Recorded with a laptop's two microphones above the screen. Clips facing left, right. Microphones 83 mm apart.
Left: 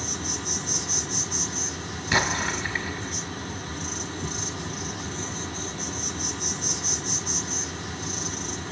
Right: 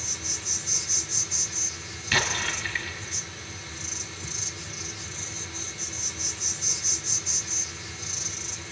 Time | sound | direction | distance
0.0 | an insect | 50° left (ahead or behind) | 7.5 m
2.1 | an explosion | 20° left (ahead or behind) | 2 m